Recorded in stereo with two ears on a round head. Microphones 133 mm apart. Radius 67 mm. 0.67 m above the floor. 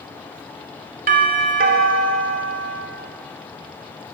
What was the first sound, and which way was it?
A doorbell, 65° right (ahead or behind).